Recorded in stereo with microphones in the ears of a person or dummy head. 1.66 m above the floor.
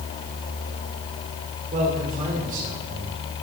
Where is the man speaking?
40° right (ahead or behind), 6 m.